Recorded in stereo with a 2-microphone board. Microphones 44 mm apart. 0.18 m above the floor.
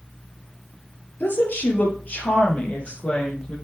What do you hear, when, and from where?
1.2 s a woman speaking: 50° left (ahead or behind), 3.5 m; by 3.5 s 25° left (ahead or behind), 5 m